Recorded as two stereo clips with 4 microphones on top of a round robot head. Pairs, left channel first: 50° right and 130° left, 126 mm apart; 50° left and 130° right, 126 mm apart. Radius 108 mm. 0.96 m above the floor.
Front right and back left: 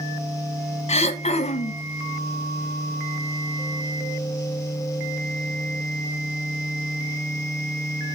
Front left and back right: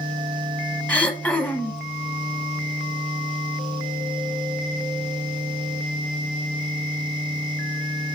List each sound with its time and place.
0.9 s throat clearing: 25° right, 1.3 m